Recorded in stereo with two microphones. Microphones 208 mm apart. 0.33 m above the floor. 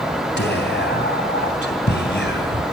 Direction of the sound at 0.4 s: 60° left (ahead or behind).